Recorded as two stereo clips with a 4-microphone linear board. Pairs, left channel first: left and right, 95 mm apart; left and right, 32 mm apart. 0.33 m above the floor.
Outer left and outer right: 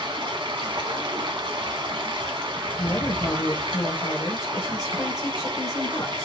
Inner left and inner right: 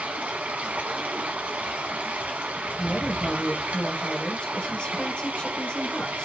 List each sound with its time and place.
0.0 s running water: 60° right (ahead or behind), 1.1 m
2.8 s a woman speaking: 35° left (ahead or behind), 1.1 m